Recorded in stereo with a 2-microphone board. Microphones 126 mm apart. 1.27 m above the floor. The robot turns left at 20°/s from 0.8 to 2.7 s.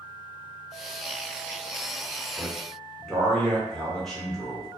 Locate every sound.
2.4 s a man speaking: 10° left (ahead or behind), 1.1 m; by 4.7 s centre (ahead or behind), 1.1 m